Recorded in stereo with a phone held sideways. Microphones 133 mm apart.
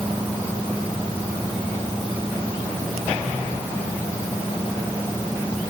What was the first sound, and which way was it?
Only background noise.